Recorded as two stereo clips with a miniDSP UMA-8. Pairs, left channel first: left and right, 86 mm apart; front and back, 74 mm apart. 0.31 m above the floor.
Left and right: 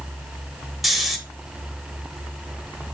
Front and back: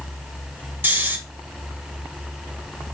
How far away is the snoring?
About 0.6 m.